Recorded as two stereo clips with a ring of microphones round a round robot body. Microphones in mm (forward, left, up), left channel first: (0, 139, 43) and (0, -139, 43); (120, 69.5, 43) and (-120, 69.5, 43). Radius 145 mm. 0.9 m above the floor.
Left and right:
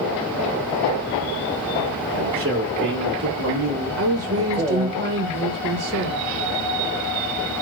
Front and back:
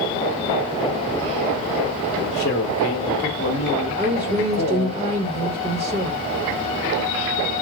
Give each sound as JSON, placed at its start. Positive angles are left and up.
{"t": 2.1, "sound": "a man speaking", "azimuth_deg": -50, "distance_m": 2.5}
{"t": 4.0, "sound": "a woman speaking", "azimuth_deg": -120, "distance_m": 1.1}